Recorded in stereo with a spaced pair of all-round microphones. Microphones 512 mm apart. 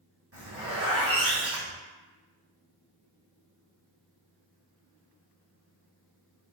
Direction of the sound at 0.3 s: 25° right (ahead or behind).